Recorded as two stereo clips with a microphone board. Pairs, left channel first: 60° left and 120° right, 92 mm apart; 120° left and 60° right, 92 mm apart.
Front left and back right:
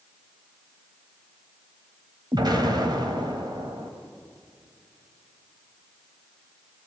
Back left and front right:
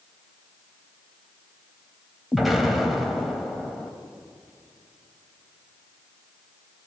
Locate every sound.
2.3 s an explosion: 150° right, 2.5 m